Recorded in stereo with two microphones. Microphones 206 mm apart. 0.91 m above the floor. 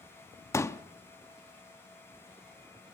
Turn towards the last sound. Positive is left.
turn(degrees=15)  # may be behind; listen again after turning